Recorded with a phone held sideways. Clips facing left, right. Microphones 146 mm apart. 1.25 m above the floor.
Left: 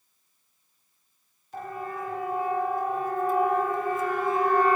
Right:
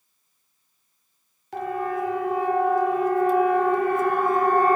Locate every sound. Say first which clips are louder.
1.5 s a siren: right 8 dB; 90° right, 3.5 m; by 4.8 s 45° right (ahead or behind), 1.5 m